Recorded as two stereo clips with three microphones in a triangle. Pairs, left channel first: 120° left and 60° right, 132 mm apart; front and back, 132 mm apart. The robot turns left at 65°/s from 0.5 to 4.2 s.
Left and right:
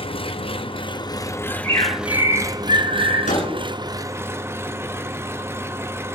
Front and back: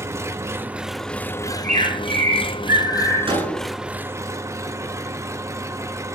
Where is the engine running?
120° left, 0.9 m; by 6.2 s 125° right, 0.9 m.